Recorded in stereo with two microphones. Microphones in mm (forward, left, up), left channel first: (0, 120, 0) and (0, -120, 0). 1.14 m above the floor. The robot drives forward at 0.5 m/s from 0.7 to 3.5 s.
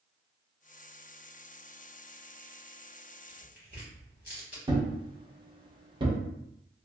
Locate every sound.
3.3 s tearing paper: 45° left (ahead or behind), 1.7 m; by 4.6 s 40° left (ahead or behind), 1.8 m
4.7 s a thud: 20° right (ahead or behind), 0.7 m